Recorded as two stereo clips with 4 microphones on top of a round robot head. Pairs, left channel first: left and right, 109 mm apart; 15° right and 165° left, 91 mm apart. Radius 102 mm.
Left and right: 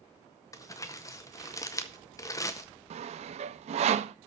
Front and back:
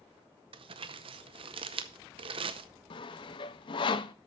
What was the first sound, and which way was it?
Crumpling, 150° left.